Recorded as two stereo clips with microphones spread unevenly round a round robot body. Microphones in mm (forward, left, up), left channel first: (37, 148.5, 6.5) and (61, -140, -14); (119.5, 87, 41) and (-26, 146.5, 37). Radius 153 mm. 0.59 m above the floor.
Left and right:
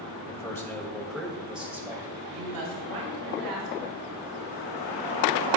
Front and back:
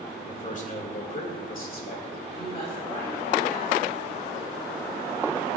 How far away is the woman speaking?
About 4.5 m.